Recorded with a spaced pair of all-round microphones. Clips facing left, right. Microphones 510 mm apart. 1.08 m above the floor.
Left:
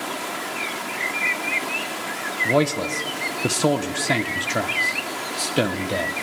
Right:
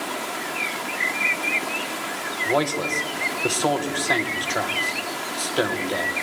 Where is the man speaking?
50° left (ahead or behind), 0.6 m.